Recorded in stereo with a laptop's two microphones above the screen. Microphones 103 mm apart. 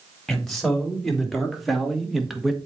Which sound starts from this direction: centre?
A man speaking, at 0.3 s.